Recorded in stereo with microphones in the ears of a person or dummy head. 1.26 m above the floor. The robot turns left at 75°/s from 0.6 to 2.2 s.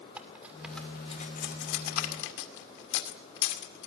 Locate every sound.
0.2 s cutlery clinking: 10° right (ahead or behind), 2.5 m; by 3.9 s 65° left (ahead or behind), 2.5 m